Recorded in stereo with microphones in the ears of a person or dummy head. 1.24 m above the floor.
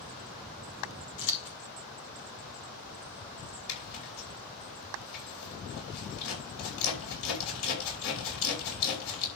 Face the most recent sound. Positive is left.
turn(degrees=75)  # may be behind; listen again after turning